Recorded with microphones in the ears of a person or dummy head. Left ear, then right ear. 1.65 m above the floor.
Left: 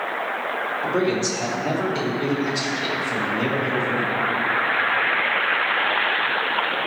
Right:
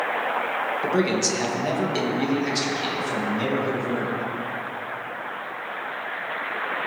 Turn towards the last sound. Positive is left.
turn(degrees=-20)  # may be behind; listen again after turning